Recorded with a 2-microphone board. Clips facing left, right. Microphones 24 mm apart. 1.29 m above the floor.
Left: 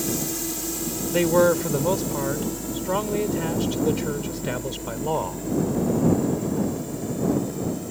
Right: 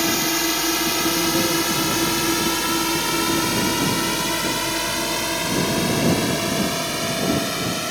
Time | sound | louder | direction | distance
0.0 | a drone | right 8 dB | 55° right (ahead or behind) | ?
1.1 | a man speaking | left 1 dB | 65° left (ahead or behind) | ?